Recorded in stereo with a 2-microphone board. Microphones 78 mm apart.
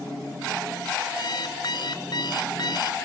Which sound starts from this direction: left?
An alarm clock, at 1.2 s.